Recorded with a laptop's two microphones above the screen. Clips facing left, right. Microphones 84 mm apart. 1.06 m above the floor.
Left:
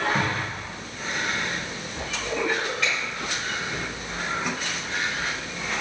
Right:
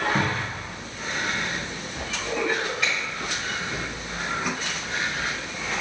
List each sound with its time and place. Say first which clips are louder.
0.1 s a cupboard door: right 1 dB; 50° right (ahead or behind), 0.8 m
2.8 s a finger snap: left 1 dB; 15° right (ahead or behind), 1.3 m